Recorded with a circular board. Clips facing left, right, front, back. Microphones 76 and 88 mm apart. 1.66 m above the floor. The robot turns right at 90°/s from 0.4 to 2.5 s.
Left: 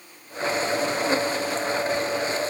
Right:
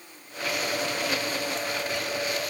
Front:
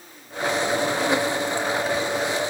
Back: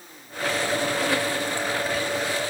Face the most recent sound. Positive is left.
No sound to turn to.